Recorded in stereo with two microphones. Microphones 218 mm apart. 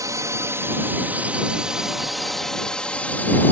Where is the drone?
15° right (ahead or behind); by 3.5 s 10° left (ahead or behind).